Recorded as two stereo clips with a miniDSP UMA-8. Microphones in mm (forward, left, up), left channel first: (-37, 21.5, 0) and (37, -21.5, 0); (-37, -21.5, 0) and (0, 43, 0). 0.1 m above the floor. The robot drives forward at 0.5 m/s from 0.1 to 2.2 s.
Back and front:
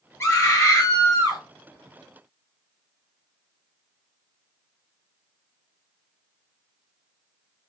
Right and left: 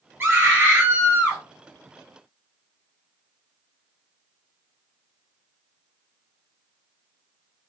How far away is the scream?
About 1.9 m.